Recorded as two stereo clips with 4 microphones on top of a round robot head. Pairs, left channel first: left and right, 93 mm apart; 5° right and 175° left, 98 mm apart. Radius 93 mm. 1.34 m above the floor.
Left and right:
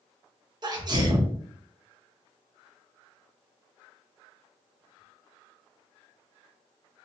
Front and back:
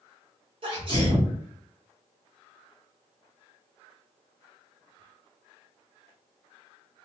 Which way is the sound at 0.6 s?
140° right.